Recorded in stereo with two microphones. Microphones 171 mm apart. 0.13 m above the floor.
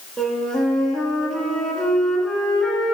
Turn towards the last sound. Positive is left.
turn(degrees=5)  # may be behind; listen again after turning